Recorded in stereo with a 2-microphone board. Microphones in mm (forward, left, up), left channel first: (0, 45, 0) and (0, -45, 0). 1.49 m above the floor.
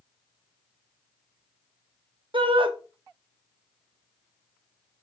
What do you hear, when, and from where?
2.3 s a shout: 60° right (ahead or behind), 0.9 m